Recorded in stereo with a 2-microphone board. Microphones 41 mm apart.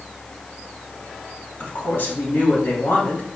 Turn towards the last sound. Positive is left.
turn(degrees=65)  # may be behind; listen again after turning